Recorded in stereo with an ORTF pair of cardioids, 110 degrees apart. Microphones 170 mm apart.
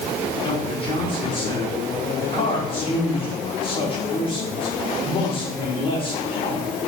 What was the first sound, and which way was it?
A man speaking, 35° left.